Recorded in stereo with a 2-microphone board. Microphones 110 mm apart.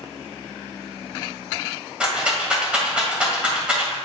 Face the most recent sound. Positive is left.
turn(degrees=-10)  # may be behind; listen again after turning